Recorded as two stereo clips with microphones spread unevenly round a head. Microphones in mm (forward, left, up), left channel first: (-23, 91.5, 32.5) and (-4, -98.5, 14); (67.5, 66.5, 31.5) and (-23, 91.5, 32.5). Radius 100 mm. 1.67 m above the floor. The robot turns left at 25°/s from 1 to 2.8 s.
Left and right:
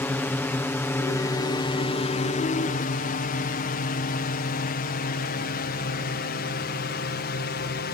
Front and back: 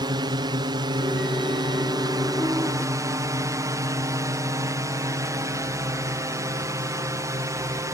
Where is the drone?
175° left; by 7.9 s 115° left.